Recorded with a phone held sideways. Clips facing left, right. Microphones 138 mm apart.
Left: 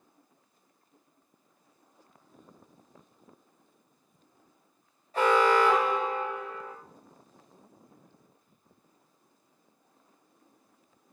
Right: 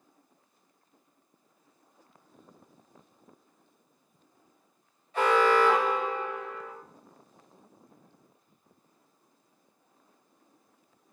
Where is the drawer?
I don't hear a drawer.